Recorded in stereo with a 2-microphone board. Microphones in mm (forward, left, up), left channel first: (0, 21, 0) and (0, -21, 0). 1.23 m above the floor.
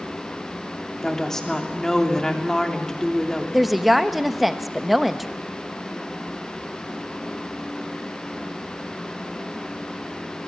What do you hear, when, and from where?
1.0 s a woman speaking: 10° left (ahead or behind), 3 m
3.5 s a woman speaking: 5° right (ahead or behind), 1.1 m